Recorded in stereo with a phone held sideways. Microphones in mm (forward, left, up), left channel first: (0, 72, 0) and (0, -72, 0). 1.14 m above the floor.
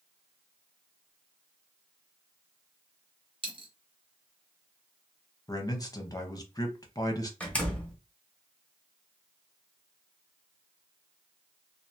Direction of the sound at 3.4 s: 40° right (ahead or behind).